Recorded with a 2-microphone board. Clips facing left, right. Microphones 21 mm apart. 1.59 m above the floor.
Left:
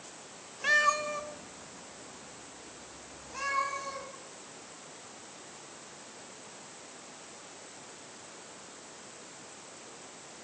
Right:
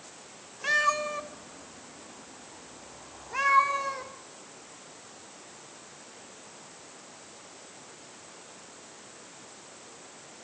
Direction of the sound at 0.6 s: 5° left (ahead or behind).